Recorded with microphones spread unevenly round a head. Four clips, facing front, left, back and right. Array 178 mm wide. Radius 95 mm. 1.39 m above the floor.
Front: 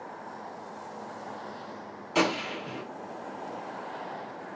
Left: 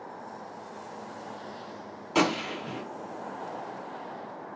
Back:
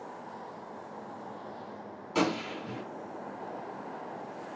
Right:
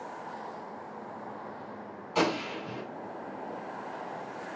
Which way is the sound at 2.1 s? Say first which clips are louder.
Left 2 dB, front 2 dB; 90° left.